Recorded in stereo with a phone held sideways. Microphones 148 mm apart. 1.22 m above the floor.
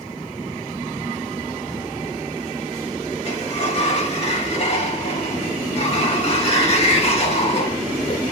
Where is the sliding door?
45° left (ahead or behind), 1.5 m.